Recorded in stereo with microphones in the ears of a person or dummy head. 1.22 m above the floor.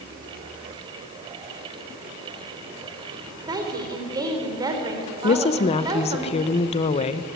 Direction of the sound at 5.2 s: 30° left (ahead or behind).